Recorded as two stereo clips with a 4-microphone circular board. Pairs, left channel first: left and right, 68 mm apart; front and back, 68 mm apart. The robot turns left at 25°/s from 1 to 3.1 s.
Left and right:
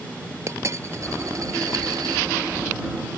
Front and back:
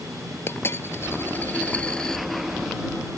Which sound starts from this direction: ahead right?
A dropped coin, at 0.5 s.